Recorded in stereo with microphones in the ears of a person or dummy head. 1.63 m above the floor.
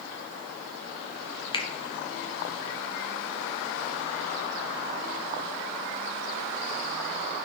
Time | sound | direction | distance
1.5 | a finger snap | 25° left (ahead or behind) | 1.1 m